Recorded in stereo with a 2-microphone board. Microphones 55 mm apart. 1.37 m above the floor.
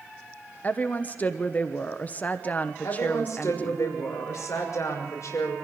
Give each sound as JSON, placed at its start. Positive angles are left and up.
{"t": 0.6, "sound": "a woman speaking", "side_deg": 30, "distance_m": 1.1}
{"t": 2.8, "sound": "a woman speaking", "side_deg": 70, "distance_m": 6.0}